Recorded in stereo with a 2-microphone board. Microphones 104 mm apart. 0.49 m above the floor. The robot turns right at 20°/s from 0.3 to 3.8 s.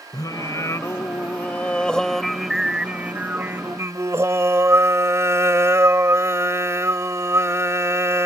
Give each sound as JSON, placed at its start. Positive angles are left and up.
{"t": 0.1, "sound": "singing", "azimuth_deg": 140}